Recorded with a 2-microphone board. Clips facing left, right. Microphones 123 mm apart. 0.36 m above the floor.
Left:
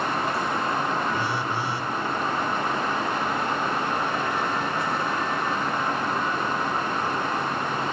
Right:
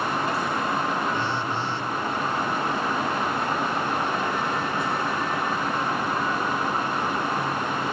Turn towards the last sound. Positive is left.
turn(degrees=10)  # may be behind; listen again after turning